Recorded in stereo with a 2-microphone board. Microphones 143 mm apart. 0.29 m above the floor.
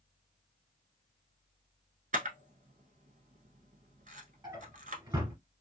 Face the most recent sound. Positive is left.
turn(degrees=-30)  # may be behind; listen again after turning